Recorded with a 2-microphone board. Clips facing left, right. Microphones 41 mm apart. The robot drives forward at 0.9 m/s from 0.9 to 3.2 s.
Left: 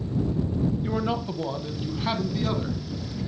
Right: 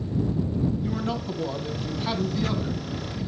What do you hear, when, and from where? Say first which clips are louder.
0.8 s a man speaking: left 1 dB; 20° left (ahead or behind), 1.1 m; by 2.8 s 10° left (ahead or behind), 2.5 m